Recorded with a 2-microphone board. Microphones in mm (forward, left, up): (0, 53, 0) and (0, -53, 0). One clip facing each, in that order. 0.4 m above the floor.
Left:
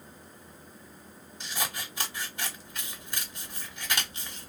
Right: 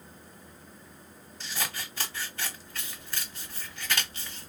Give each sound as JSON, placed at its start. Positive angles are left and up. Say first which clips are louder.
{"t": 1.4, "sound": "scissors", "louder": "left 1 dB", "side_deg": 15, "distance_m": 0.8}